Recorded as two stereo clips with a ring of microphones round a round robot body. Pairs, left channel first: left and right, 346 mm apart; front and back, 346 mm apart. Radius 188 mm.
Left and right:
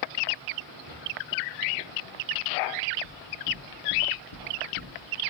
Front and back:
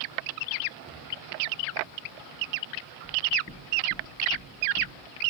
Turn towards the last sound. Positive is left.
turn(degrees=60)